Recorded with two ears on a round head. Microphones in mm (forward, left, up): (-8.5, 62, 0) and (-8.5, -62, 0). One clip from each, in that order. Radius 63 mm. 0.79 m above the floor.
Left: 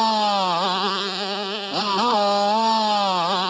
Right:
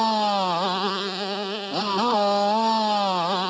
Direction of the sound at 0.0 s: 25° left (ahead or behind).